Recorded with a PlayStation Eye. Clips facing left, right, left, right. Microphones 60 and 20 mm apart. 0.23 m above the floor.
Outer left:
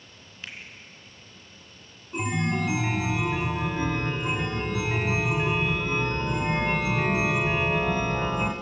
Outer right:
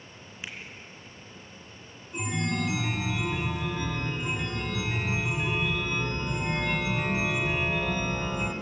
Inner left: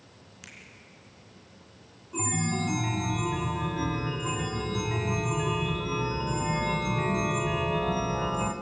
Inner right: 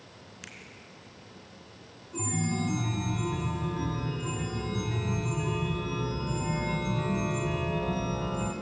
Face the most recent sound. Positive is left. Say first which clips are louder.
# outer left 3 dB, inner left 2 dB
turn(degrees=30)  # may be behind; listen again after turning